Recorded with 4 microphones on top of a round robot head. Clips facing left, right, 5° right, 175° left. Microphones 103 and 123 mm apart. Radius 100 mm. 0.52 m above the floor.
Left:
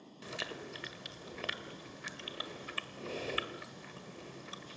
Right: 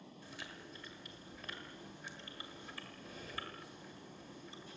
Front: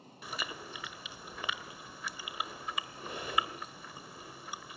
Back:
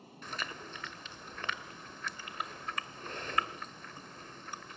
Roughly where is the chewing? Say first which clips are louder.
Left 10 dB, front 1 dB; left.